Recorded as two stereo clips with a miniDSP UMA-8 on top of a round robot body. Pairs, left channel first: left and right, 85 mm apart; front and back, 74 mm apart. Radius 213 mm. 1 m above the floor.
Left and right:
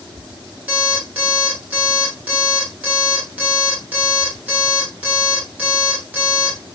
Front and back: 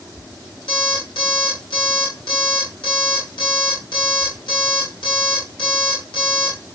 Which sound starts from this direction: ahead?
An alarm clock, at 0.7 s.